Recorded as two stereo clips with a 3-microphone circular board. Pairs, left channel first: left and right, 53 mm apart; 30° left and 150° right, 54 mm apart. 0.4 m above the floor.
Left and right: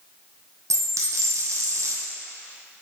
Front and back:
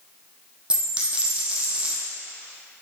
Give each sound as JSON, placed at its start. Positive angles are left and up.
{"t": 0.7, "sound": "a dropped coin", "azimuth_deg": -80, "distance_m": 1.1}